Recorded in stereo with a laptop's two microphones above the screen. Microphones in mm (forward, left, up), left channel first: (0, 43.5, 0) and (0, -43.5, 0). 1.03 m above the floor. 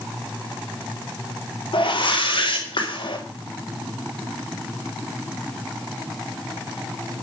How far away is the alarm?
I don't hear an alarm.